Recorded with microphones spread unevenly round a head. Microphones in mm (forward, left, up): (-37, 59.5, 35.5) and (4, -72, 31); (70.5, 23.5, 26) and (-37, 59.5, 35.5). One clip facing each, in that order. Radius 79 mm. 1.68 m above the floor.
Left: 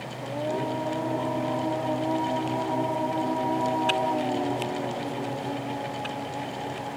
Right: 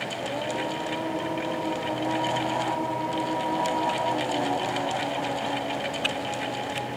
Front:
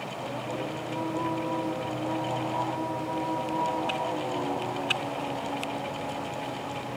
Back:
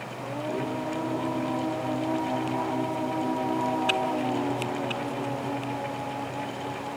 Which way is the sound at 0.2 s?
160° left.